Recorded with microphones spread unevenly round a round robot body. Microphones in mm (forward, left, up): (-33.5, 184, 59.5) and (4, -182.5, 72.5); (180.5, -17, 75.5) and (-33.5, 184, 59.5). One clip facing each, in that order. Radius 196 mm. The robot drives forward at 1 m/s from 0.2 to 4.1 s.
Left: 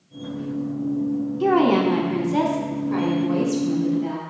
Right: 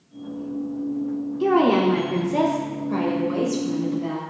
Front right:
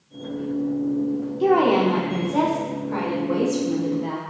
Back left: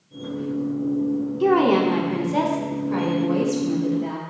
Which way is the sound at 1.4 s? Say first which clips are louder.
Even, even; 160° left.